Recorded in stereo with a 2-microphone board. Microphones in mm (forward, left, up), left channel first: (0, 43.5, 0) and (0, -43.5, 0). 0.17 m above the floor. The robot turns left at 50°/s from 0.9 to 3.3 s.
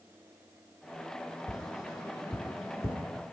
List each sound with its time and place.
1.5 s tapping: 40° left (ahead or behind), 1.0 m; by 3.0 s 30° left (ahead or behind), 1.0 m